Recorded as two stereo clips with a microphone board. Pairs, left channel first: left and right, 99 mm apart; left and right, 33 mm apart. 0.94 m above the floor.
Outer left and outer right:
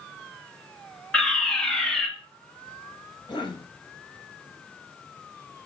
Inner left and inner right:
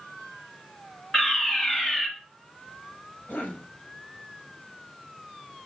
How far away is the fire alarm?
About 2.5 m.